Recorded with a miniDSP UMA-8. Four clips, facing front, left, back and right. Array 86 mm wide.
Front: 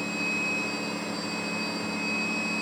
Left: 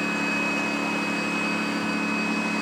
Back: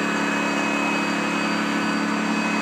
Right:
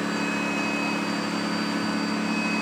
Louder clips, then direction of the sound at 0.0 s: Even, back 9 dB; straight behind.